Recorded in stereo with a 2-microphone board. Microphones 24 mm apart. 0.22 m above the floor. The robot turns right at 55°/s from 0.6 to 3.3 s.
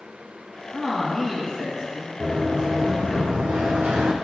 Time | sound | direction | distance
0.7 | a man speaking | 150° left | 1.9 m
2.2 | running footsteps | 25° right (ahead or behind) | 3 m